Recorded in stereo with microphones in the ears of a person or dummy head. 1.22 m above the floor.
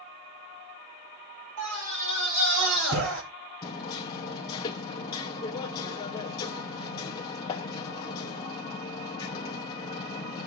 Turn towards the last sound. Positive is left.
turn(degrees=25)  # may be behind; listen again after turning